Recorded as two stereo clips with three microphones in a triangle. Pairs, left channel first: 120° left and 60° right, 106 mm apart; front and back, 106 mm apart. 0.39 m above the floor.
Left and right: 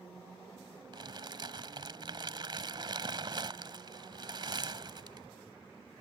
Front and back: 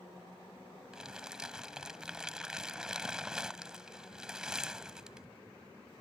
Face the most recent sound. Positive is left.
turn(degrees=-100)